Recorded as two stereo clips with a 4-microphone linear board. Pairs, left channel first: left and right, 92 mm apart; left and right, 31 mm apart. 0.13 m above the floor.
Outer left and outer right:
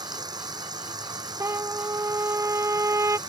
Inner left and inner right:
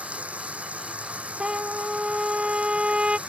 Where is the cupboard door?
No cupboard door in this recording.